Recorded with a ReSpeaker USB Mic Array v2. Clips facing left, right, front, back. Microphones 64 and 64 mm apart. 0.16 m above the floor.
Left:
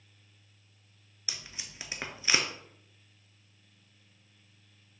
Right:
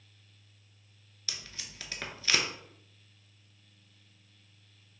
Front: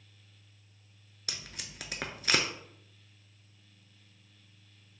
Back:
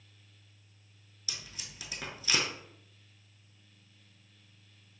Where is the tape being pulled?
20° left, 0.6 m.